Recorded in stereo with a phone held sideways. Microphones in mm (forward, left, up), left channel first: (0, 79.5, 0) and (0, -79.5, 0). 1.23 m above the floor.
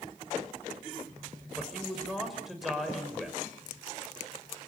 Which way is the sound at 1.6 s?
Centre (ahead or behind).